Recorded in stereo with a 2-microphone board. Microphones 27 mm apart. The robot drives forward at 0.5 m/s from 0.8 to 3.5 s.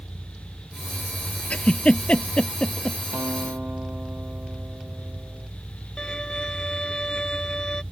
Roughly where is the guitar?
Right.